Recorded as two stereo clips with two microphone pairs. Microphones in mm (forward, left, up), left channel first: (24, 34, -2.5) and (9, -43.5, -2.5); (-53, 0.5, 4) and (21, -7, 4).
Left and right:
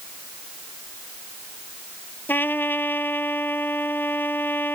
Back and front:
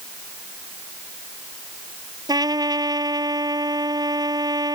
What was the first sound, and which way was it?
A trumpet, 15° left.